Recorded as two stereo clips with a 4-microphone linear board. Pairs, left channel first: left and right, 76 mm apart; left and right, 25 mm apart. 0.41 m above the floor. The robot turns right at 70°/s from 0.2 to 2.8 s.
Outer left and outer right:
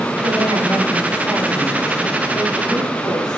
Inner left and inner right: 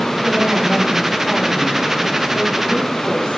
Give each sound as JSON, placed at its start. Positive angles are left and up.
{"t": 0.2, "sound": "a woman speaking", "azimuth_deg": -110, "distance_m": 9.0}